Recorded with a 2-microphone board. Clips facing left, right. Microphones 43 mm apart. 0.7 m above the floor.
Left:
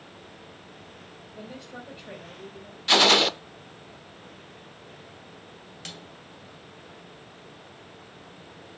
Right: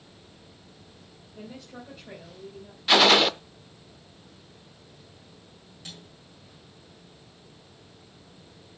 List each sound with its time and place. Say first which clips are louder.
1.4 s a woman speaking: left 1 dB; 20° left (ahead or behind), 3.5 m; by 2.8 s 35° left (ahead or behind), 3.5 m
2.9 s a gunshot: right 1 dB; 5° right (ahead or behind), 0.6 m
5.8 s a snare drum: left 3 dB; 75° left (ahead or behind), 2.5 m